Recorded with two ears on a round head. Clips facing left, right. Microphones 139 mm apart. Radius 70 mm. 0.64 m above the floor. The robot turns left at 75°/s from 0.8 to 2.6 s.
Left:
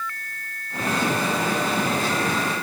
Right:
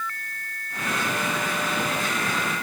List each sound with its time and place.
Only background noise.